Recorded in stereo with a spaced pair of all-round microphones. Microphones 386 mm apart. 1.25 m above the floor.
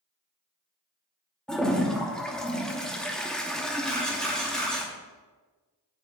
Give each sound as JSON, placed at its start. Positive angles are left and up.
{"t": 1.5, "sound": "a toilet flushing", "side_deg": 0, "distance_m": 0.9}
{"t": 3.9, "sound": "a camera shutter", "side_deg": 0, "distance_m": 3.0}